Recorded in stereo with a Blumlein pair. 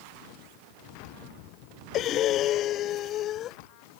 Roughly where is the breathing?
Ahead left.